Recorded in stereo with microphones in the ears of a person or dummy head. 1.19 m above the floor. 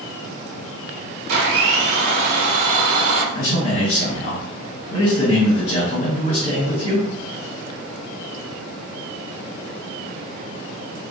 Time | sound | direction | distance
1.3 | a blender | 55° right (ahead or behind) | 0.7 m
3.4 | a man speaking | 65° left (ahead or behind) | 1.0 m